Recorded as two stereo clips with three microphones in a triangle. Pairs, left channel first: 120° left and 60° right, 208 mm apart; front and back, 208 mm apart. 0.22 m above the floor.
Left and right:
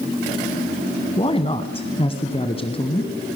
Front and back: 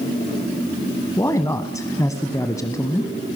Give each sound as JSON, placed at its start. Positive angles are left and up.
{"t": 1.2, "sound": "a man speaking", "azimuth_deg": 70, "distance_m": 1.4}